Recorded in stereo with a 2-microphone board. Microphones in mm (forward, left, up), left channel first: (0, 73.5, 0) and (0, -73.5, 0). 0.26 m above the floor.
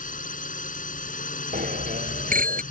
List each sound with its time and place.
0.0 s a drone: 70° left (ahead or behind)
1.5 s a bicycle bell: 75° right (ahead or behind)